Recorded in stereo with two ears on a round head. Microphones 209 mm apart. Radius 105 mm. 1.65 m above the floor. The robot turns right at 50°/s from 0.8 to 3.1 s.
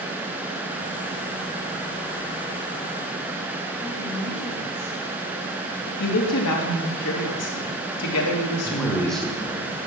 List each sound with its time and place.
3.8 s a woman speaking: 75° left (ahead or behind), 3 m
6.0 s a woman speaking: 75° left (ahead or behind), 3 m
8.7 s a man speaking: centre (ahead or behind), 1.6 m